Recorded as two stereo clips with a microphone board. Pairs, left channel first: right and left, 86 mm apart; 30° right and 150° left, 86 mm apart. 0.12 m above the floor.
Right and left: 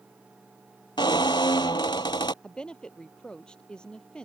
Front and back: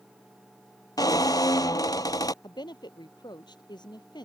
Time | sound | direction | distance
1.0 | a squeak | 65° right | ?
2.4 | a woman speaking | 10° right | ?